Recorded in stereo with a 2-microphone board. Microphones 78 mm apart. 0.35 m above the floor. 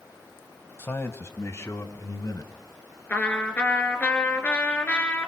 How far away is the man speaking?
About 1.9 m.